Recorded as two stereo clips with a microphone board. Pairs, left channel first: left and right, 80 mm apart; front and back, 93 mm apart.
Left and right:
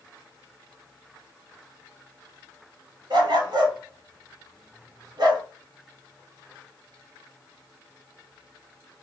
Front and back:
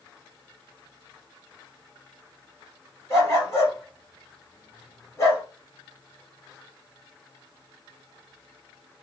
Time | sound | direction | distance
3.1 | a dog barking | 60° right | 1.6 m